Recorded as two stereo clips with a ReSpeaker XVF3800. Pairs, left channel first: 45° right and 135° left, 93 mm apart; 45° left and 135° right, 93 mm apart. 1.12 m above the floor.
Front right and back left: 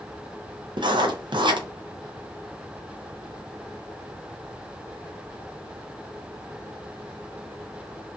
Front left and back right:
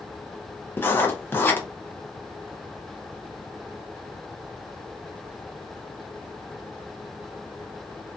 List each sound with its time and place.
0.8 s writing: 110° left, 0.5 m